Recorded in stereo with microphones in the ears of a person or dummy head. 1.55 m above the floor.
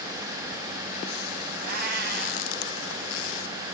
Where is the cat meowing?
50° right (ahead or behind), 3 m.